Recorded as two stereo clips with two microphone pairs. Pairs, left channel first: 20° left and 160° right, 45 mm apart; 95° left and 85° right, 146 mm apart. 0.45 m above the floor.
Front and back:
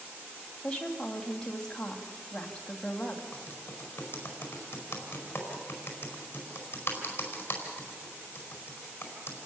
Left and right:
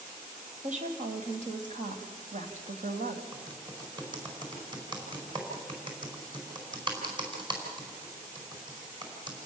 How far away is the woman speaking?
About 2.5 m.